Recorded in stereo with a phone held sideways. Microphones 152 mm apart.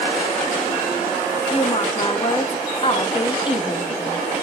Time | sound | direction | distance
1.5 | a woman speaking | 35° left (ahead or behind) | 0.6 m